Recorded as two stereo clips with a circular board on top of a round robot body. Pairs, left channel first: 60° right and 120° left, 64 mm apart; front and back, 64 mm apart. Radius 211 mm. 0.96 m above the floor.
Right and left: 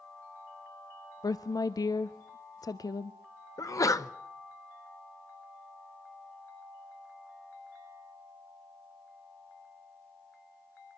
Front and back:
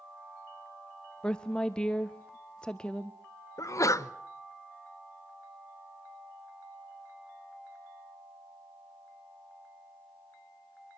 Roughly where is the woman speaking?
Right.